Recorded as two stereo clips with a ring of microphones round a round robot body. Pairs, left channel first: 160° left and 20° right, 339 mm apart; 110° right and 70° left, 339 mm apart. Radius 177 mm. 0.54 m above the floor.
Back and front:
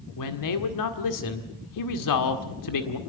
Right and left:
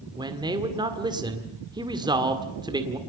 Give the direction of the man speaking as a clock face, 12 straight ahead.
7 o'clock.